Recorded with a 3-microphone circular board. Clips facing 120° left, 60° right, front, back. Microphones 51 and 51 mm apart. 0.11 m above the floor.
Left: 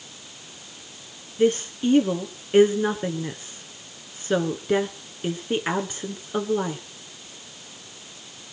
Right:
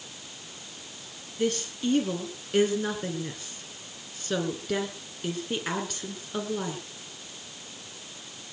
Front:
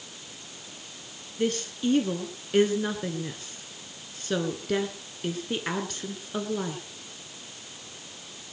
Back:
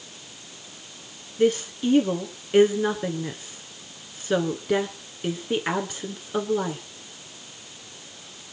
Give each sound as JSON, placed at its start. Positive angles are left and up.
{"t": 1.4, "sound": "a woman speaking", "azimuth_deg": 135, "distance_m": 1.5}